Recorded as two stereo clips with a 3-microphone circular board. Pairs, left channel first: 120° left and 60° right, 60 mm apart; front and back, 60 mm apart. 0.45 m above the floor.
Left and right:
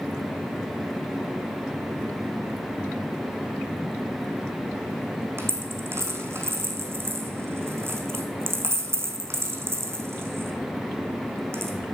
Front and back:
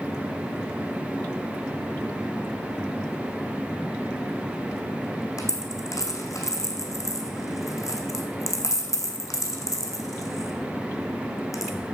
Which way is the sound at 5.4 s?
15° right.